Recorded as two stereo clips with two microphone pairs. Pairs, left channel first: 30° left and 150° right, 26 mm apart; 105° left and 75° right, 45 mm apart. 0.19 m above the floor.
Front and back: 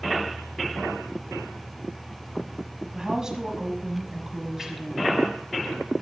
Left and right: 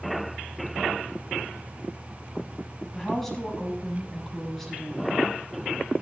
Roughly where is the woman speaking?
Behind.